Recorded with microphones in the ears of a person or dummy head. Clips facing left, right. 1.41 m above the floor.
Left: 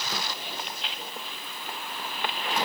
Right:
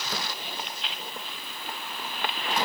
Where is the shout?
I don't hear a shout.